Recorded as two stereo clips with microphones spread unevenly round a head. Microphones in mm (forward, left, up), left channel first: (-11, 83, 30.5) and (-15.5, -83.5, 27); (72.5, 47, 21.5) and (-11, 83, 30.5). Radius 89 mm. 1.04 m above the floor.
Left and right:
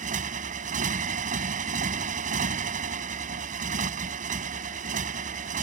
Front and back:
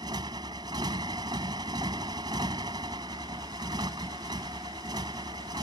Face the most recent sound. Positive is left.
turn(degrees=-135)